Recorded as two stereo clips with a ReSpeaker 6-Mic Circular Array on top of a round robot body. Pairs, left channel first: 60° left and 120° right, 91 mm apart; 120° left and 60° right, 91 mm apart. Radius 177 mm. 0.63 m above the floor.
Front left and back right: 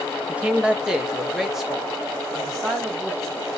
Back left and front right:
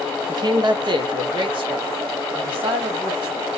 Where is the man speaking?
50° right, 0.8 m; by 3.5 s 30° right, 2.5 m.